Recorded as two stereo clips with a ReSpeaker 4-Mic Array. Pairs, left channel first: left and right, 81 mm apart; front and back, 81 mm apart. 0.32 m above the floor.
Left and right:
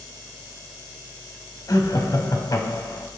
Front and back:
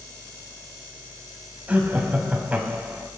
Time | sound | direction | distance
1.7 | laughter | 115° left | 1.8 m